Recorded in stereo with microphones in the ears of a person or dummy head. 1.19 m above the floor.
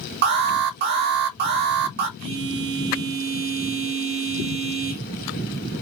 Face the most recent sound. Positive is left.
turn(degrees=-75)  # may be behind; listen again after turning